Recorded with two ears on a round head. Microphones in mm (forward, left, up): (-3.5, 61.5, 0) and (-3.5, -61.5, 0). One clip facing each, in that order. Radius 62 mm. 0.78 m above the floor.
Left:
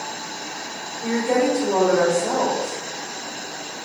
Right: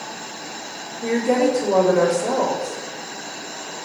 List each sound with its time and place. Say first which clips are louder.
1.0 s a woman speaking: right 2 dB; 25° right (ahead or behind), 2.5 m